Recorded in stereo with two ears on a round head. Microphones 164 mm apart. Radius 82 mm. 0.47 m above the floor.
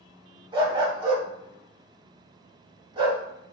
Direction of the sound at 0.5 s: 25° right (ahead or behind).